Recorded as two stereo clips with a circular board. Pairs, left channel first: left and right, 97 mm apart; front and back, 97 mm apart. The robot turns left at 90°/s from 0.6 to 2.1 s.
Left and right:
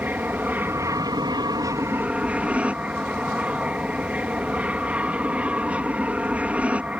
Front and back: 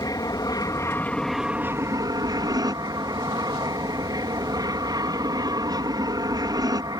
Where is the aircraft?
25° right; by 7.0 s 160° right.